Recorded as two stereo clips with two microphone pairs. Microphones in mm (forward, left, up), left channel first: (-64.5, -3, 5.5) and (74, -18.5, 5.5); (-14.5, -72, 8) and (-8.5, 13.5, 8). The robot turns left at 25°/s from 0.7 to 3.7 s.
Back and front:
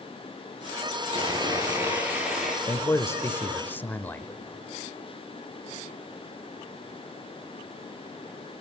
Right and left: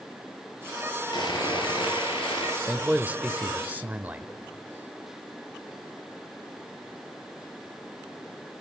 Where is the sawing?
60° right, 4 m; by 2.6 s 95° right, 4 m.